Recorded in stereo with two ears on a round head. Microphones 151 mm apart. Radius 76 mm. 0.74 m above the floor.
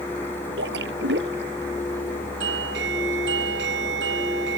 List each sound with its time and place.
0.6 s a splash: 70° right (ahead or behind)
2.4 s a doorbell: 75° right (ahead or behind)